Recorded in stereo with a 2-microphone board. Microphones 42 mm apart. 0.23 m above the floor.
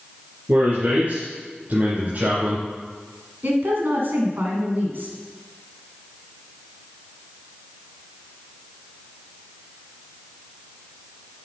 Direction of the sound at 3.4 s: 55° right (ahead or behind).